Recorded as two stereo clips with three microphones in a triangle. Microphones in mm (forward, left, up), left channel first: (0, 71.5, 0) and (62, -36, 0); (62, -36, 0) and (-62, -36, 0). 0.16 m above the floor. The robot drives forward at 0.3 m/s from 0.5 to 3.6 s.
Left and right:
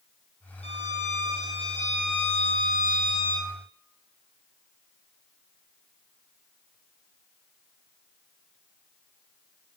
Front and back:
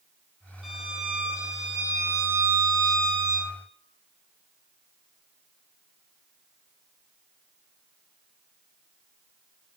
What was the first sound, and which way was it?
A violin, 90° left.